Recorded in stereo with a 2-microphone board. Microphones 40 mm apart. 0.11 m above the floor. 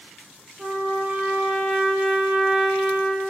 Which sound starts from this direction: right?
A trumpet, at 0.6 s.